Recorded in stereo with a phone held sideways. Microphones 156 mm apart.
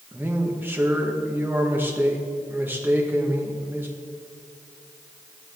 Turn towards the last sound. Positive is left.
turn(degrees=-15)  # may be behind; listen again after turning